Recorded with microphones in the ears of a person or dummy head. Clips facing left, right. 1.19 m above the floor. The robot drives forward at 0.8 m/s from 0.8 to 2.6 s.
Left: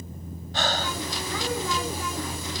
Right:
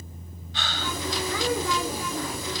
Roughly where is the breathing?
Left.